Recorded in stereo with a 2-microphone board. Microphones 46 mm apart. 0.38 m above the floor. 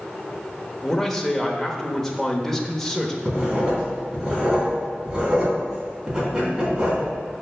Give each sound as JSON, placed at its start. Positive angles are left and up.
{"t": 0.8, "sound": "a man speaking", "side_deg": 10, "distance_m": 1.0}
{"t": 3.2, "sound": "writing", "side_deg": -15, "distance_m": 3.0}